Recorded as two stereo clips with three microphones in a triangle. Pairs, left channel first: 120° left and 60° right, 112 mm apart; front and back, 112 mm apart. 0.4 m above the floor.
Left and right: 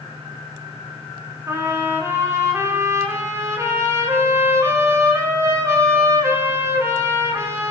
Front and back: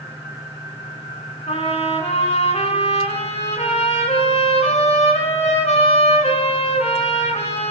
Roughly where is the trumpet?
Ahead.